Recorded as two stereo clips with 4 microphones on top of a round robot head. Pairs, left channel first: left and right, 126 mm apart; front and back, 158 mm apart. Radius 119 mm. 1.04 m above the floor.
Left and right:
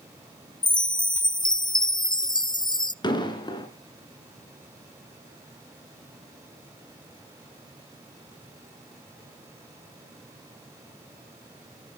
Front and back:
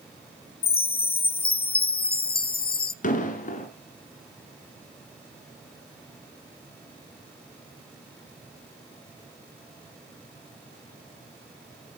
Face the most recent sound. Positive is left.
turn(degrees=35)